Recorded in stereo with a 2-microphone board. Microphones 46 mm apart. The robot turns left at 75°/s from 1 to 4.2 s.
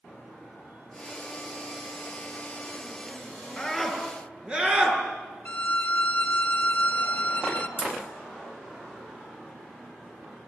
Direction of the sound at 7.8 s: 15° left (ahead or behind).